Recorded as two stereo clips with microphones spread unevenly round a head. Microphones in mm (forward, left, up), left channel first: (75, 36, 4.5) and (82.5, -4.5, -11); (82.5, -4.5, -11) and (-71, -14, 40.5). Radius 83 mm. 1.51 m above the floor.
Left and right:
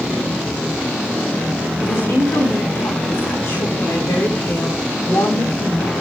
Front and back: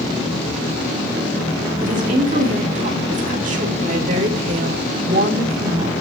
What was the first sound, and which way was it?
A woman speaking, 140° left.